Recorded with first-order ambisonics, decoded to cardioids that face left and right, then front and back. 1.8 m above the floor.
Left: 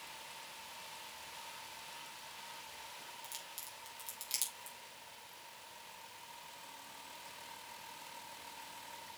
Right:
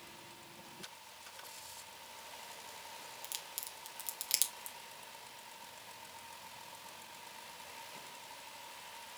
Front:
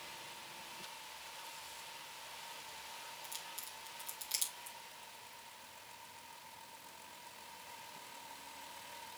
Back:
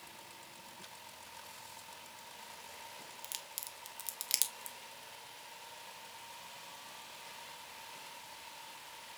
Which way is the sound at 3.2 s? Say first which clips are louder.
Right 2 dB, back 1 dB; 145° right.